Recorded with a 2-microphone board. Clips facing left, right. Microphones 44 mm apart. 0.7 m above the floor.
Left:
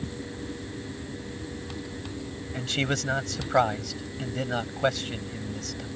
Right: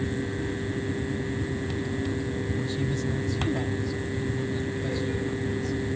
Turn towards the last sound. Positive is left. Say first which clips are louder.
# even
turn(degrees=75)  # may be behind; listen again after turning